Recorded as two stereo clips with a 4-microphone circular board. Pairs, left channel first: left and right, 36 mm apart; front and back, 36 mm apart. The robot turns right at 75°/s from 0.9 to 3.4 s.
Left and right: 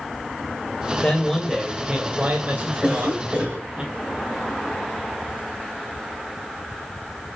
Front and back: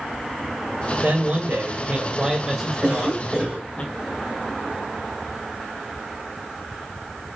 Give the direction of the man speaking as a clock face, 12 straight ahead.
7 o'clock.